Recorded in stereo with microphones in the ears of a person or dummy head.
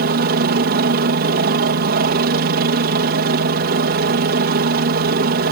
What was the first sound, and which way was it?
A helicopter, 55° right (ahead or behind).